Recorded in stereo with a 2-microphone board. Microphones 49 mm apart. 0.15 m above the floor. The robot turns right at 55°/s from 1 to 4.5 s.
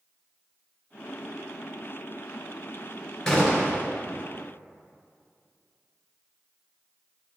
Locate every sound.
3.3 s a gunshot: 10° left, 2.5 m; by 3.9 s 40° left, 2.5 m